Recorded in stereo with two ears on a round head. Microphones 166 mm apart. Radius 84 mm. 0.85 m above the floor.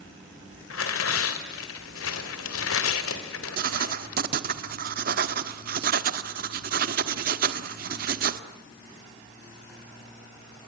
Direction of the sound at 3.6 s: 50° right (ahead or behind).